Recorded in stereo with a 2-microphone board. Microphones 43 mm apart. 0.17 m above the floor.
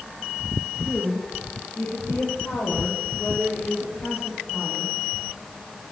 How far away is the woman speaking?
About 6.5 m.